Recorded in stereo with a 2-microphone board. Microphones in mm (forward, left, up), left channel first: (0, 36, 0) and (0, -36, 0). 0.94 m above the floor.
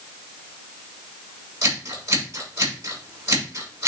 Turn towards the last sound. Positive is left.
turn(degrees=-40)  # may be behind; listen again after turning